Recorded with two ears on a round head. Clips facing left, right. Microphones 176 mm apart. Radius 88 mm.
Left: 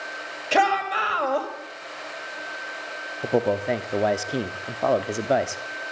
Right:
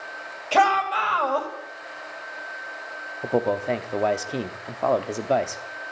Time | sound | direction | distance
0.5 | a shout | 20° left (ahead or behind) | 2 m
3.2 | a man speaking | 5° left (ahead or behind) | 0.6 m